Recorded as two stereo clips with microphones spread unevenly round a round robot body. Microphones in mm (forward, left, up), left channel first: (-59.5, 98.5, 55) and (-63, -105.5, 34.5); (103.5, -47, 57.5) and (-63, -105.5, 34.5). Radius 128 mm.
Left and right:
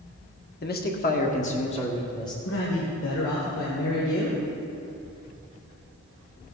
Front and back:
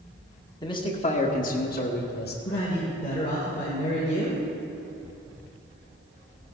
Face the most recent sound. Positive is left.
turn(degrees=85)